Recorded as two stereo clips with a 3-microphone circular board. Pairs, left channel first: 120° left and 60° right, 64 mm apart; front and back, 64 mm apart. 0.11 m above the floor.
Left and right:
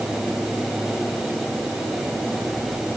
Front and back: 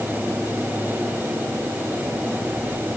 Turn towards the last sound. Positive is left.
No sound to turn to.